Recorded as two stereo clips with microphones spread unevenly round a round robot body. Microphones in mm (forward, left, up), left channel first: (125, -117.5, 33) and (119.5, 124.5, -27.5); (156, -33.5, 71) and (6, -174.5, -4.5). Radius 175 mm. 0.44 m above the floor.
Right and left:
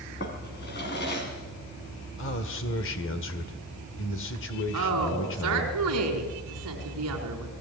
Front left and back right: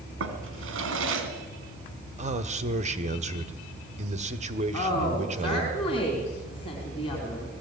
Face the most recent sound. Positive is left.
turn(degrees=120)